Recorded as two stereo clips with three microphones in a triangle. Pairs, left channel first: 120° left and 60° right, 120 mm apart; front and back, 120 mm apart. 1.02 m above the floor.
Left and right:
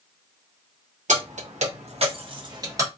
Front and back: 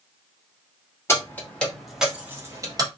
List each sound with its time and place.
1.1 s keys jangling: 70° right, 1.1 m; by 2.9 s 125° right, 0.9 m